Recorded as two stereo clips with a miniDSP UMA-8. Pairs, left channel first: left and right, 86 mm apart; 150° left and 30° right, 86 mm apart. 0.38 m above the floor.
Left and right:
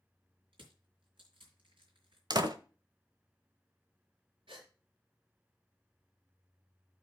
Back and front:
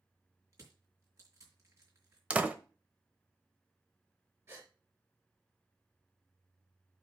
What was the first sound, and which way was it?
Crushing, 85° right.